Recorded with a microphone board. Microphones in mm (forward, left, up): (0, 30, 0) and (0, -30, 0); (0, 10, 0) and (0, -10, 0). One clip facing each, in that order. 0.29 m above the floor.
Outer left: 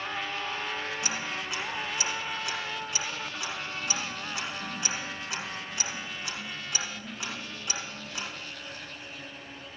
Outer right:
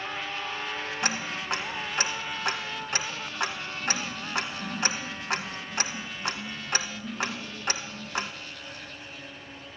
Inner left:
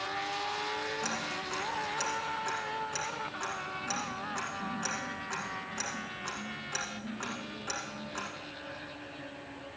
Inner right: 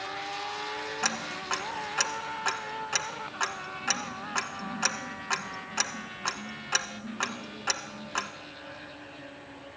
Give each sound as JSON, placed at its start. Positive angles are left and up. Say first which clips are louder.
{"t": 1.0, "sound": "ticking", "louder": "outer right 3 dB, inner right 3 dB", "side_deg": -55, "distance_m": 1.3}